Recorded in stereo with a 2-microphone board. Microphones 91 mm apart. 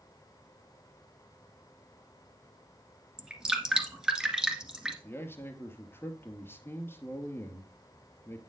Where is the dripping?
10° right (ahead or behind), 1.7 m.